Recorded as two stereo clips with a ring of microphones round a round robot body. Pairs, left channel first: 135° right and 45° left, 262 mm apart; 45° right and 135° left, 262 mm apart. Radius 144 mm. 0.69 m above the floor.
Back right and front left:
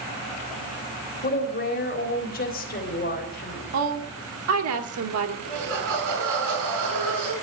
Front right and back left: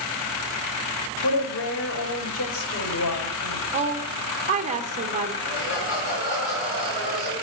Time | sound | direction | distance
1.2 | a woman speaking | 80° right | 4 m
3.7 | a woman speaking | 70° left | 2.5 m
5.4 | laughter | 5° left | 9 m